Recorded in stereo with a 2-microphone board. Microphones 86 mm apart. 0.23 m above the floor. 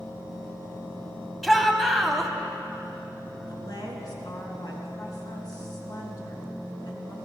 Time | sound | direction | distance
1.4 | a shout | 5° left (ahead or behind) | 1.2 m
3.5 | a woman speaking | 50° left (ahead or behind) | 3 m